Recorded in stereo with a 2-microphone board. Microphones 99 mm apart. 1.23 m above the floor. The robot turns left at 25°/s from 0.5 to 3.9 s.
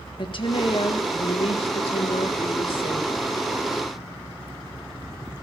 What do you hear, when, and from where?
0.2 s a woman speaking: 120° left, 1.7 m; by 3.1 s 55° left, 1.7 m